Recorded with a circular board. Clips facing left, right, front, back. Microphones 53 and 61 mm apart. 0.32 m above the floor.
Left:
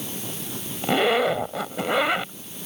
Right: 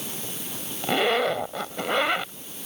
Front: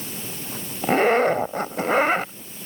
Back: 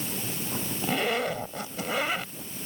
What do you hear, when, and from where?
0.8 s a zipper: 5° left